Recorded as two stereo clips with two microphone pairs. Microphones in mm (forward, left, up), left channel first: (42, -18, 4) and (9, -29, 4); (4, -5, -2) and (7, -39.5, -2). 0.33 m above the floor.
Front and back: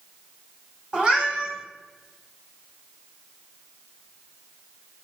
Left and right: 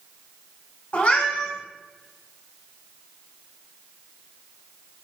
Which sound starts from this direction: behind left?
A cat meowing, at 0.9 s.